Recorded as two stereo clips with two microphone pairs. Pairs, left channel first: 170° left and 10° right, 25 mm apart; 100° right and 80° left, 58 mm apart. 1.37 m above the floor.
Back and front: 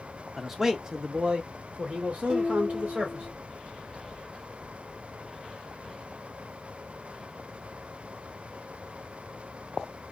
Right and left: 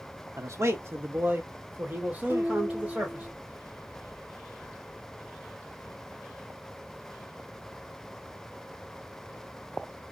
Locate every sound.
0.4 s a man speaking: 70° left, 0.6 m; by 3.3 s 10° left, 1.8 m
2.3 s dishes clattering: 35° left, 1.1 m